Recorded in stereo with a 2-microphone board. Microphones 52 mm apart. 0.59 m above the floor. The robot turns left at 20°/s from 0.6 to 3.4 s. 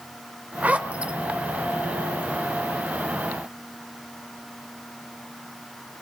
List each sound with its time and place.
0.6 s a zipper: 30° right (ahead or behind), 0.6 m; by 1.1 s 20° right (ahead or behind), 0.6 m